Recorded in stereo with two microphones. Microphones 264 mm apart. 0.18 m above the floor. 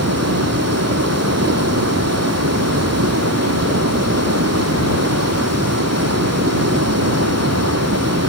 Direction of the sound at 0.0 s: 70° right (ahead or behind).